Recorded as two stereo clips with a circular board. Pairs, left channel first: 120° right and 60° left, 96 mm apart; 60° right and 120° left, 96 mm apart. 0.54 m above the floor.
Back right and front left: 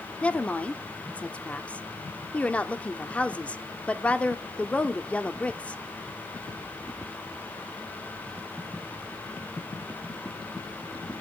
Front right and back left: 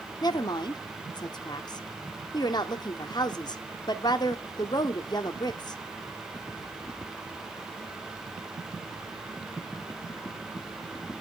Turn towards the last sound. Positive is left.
turn(degrees=-50)